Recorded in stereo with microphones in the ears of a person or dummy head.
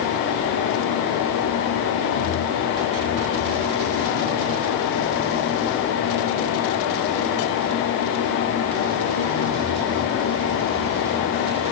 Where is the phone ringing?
I don't hear a phone ringing.